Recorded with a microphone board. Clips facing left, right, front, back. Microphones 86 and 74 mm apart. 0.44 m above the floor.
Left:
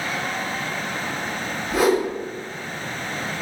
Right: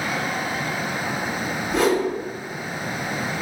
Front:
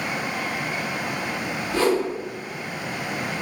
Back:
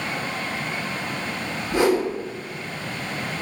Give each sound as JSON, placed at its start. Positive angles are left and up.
{"t": 1.7, "sound": "a whoosh", "azimuth_deg": 165, "distance_m": 1.0}